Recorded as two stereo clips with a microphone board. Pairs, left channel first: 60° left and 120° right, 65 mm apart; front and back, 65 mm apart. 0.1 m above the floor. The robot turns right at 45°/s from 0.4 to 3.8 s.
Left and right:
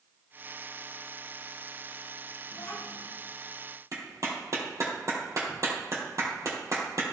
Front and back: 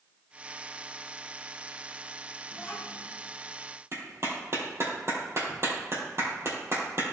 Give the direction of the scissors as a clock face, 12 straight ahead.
No scissors in this recording.